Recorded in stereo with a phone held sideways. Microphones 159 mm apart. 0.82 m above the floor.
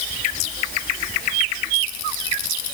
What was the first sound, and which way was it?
Only background noise.